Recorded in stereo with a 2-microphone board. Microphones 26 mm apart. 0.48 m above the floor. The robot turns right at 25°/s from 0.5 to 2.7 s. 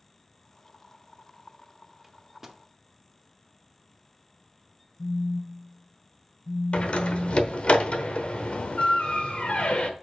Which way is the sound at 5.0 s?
15° left (ahead or behind).